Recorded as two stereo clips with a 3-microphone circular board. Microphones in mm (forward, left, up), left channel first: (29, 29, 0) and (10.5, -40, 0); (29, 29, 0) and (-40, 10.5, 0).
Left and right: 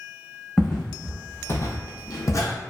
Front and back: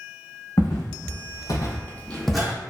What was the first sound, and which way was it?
Footsteps, 5° right.